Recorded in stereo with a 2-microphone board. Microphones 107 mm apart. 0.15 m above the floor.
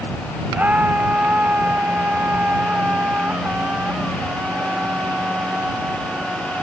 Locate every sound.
0.5 s a scream: 15° right (ahead or behind); by 6.6 s 10° right (ahead or behind)